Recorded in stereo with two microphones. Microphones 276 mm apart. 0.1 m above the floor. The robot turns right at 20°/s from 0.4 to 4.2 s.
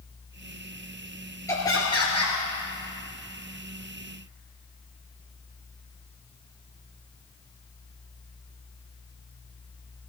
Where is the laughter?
10° left (ahead or behind), 1.8 m; by 2.4 s 20° left (ahead or behind), 1.8 m.